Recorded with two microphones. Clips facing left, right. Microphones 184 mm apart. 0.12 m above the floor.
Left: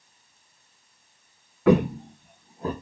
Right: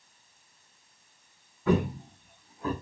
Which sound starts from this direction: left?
Footsteps, at 1.7 s.